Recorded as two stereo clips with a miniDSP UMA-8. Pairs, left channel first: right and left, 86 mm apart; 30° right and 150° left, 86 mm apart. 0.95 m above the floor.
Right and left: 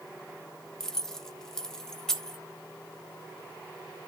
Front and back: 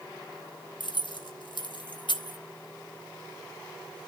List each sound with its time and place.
0.8 s keys jangling: 5° right, 0.8 m